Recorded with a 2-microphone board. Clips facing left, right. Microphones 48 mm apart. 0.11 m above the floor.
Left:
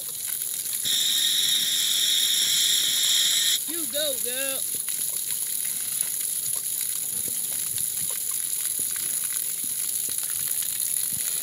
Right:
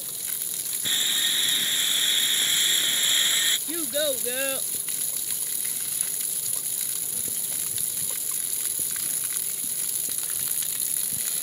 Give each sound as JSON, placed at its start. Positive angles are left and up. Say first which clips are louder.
{"t": 0.8, "sound": "sawing", "louder": "even", "side_deg": -25}
{"t": 3.7, "sound": "a child speaking", "louder": "right 3 dB", "side_deg": -15}